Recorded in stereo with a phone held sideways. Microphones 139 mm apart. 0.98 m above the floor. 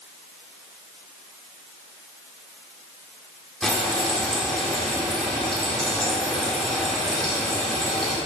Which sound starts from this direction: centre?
Frying, at 3.6 s.